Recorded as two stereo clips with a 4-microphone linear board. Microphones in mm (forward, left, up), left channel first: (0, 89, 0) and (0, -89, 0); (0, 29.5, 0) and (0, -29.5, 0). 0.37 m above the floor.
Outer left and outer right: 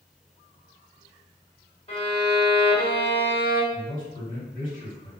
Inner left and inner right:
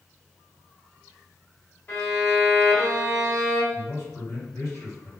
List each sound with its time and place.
1.9 s a violin: 30° left (ahead or behind), 1.9 m
3.7 s a man speaking: 50° left (ahead or behind), 1.7 m